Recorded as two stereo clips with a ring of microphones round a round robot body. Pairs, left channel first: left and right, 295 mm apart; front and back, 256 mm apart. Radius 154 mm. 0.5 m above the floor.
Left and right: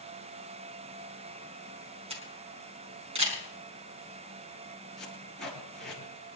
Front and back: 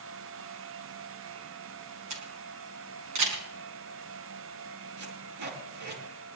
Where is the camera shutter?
160° right, 5 m.